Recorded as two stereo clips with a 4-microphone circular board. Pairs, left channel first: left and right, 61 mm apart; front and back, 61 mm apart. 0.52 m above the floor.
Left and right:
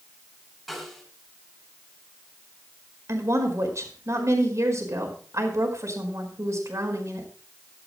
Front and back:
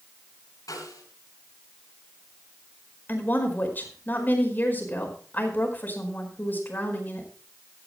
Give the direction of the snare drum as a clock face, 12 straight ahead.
12 o'clock.